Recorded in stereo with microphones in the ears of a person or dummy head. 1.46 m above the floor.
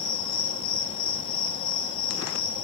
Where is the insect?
40° left (ahead or behind), 1.3 m.